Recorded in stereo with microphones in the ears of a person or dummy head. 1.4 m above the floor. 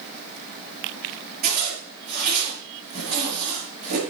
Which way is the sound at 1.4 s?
45° right (ahead or behind).